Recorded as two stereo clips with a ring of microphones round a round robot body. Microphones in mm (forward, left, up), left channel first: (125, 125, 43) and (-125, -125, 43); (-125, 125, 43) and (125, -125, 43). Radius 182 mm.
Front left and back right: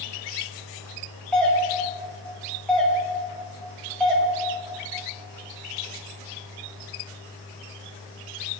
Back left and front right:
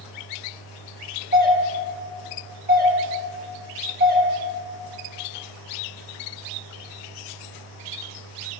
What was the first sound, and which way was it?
A doorbell, 40° right.